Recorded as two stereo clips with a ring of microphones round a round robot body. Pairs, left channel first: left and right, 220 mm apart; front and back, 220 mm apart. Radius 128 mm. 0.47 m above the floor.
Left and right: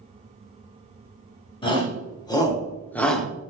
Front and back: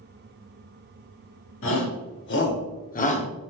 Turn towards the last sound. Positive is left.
turn(degrees=-5)